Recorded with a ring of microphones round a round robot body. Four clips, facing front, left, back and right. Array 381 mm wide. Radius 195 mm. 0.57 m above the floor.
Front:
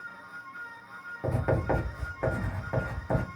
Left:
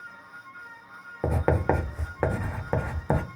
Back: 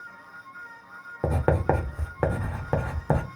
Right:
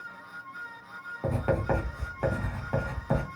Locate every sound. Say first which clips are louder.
1.2 s writing: left 3 dB, back 4 dB; 145° left, 0.6 m